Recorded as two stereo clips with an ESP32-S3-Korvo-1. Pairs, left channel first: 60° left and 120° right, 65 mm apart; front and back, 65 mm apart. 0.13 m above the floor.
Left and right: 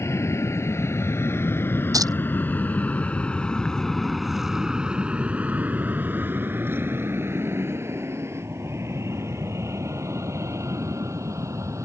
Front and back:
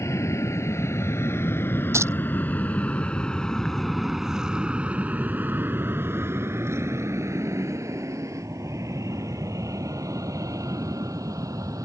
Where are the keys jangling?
140° right.